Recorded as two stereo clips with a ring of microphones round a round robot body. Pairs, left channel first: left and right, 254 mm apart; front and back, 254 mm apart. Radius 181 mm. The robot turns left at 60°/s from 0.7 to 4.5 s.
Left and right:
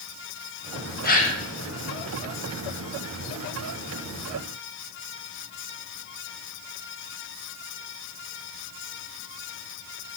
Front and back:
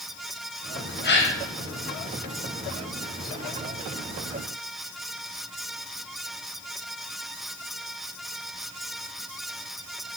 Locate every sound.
1.0 s a gasp: 45° left, 1.4 m; by 1.4 s 20° left, 1.4 m